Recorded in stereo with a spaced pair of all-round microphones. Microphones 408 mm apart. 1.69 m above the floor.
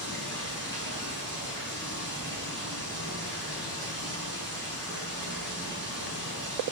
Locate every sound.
0.0 s running water: 25° right (ahead or behind), 8 m